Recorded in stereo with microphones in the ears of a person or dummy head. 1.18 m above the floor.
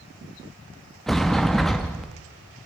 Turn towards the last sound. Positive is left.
turn(degrees=0)  # may be behind; listen again after turning